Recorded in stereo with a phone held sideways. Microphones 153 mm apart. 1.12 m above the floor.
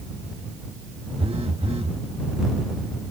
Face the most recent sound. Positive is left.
turn(degrees=-40)  # may be behind; listen again after turning